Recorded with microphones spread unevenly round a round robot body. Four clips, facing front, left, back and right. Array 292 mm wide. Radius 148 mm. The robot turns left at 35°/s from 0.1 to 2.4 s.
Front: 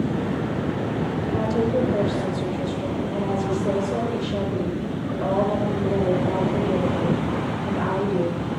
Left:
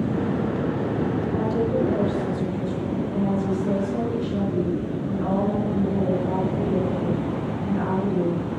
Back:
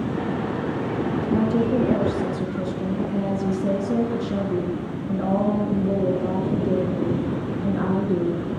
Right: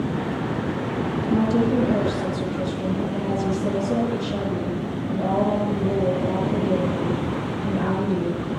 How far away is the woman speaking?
About 5 m.